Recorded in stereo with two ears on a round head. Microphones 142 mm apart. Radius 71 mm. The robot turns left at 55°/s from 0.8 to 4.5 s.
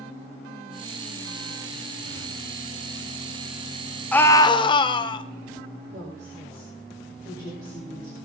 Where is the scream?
10° left (ahead or behind), 1.0 m; by 5.2 s 30° left (ahead or behind), 1.0 m.